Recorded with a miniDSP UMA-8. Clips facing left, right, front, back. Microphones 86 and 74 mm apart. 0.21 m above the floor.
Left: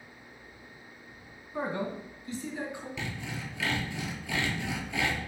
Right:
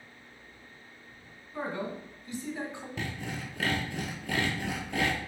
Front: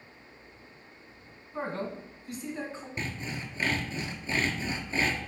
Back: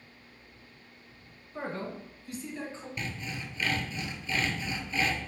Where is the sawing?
55° right, 0.7 m.